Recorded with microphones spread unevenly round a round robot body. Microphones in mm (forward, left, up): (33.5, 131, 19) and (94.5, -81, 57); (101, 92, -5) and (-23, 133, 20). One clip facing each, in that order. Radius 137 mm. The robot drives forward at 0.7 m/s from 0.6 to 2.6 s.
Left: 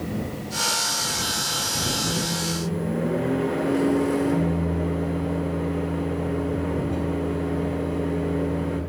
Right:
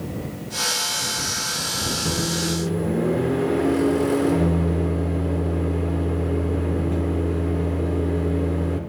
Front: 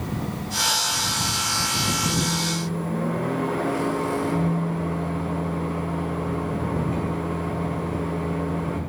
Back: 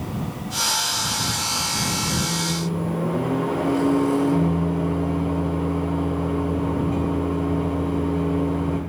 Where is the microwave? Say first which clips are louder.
Right 3 dB, even; 105° right, 1.3 m; by 8.8 s 120° right, 1.4 m.